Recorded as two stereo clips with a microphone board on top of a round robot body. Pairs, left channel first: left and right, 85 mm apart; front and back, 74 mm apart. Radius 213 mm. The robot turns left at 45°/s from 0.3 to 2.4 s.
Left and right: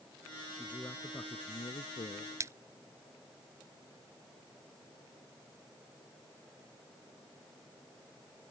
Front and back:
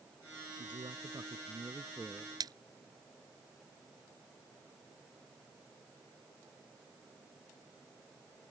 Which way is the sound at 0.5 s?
175° left.